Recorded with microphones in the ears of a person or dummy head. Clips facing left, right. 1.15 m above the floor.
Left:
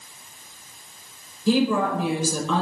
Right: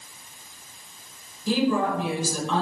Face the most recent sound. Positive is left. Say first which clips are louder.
# left 2 dB
turn(degrees=60)  # may be behind; listen again after turning